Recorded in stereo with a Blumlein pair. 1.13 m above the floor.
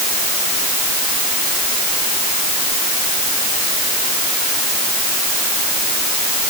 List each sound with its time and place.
Only background noise.